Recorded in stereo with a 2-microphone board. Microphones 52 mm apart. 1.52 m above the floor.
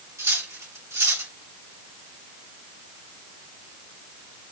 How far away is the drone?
No drone in this recording.